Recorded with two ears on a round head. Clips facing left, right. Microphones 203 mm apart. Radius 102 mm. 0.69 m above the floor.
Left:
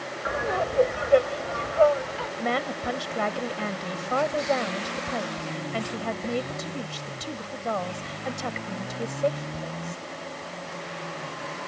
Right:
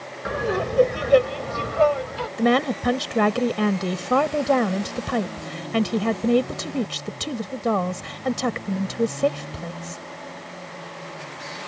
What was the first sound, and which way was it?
Laughter, 45° right (ahead or behind).